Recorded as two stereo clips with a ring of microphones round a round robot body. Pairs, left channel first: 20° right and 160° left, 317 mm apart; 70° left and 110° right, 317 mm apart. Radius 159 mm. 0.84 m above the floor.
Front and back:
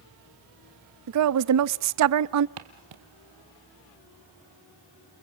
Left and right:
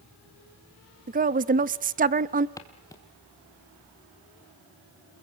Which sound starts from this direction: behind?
A woman speaking, at 1.1 s.